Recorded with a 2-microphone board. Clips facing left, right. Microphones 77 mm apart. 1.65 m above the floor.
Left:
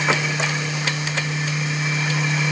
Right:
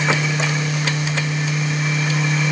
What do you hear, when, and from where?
Only background noise.